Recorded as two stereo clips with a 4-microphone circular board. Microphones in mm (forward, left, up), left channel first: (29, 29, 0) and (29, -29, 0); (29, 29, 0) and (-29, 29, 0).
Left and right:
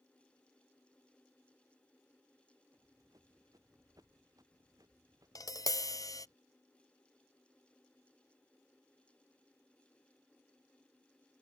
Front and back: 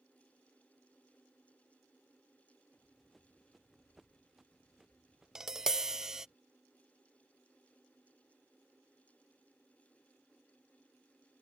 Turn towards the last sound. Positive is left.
turn(degrees=100)